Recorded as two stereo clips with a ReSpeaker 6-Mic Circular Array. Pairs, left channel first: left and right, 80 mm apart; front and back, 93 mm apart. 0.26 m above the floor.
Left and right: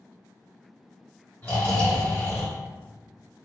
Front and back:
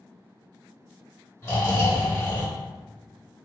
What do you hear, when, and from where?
1.4 s snoring: 40° left, 1.5 m